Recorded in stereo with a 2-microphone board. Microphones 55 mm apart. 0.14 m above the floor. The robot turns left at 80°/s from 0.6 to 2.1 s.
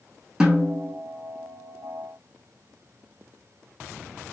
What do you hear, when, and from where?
0.4 s a snare drum: 10° right (ahead or behind), 1.0 m; by 1.0 s 15° left (ahead or behind), 1.0 m